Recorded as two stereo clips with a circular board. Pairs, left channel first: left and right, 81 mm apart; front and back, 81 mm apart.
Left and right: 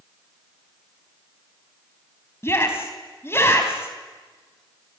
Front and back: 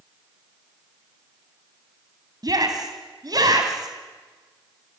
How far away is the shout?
About 3 m.